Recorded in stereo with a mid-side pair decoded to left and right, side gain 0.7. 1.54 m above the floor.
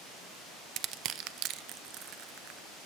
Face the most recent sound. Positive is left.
turn(degrees=-55)